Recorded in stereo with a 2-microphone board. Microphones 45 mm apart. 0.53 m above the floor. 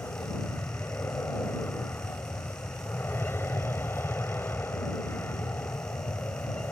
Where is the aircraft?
60° left (ahead or behind).